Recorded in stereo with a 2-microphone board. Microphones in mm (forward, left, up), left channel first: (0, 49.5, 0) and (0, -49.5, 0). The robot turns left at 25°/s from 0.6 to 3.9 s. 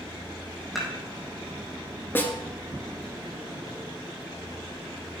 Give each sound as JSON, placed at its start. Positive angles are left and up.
{"t": 0.8, "sound": "dishes clattering", "side_deg": 0, "distance_m": 4.0}
{"t": 2.1, "sound": "a snare drum", "side_deg": 20, "distance_m": 1.5}